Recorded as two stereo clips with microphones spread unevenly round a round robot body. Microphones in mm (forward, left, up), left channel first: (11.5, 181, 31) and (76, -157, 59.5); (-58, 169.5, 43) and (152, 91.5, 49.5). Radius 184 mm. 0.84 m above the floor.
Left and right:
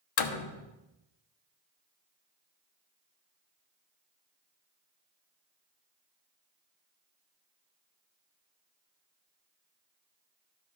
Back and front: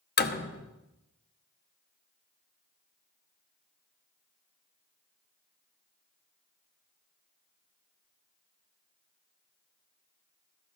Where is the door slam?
115° left, 1.2 m.